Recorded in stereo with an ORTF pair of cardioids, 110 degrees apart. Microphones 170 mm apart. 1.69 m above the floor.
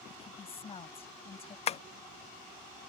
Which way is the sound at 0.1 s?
35° left.